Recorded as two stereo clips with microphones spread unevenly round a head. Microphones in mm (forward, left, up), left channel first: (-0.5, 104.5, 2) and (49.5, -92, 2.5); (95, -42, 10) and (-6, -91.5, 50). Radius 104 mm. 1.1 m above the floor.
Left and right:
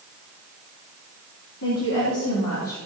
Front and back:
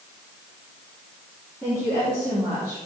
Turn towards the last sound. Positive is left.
turn(degrees=120)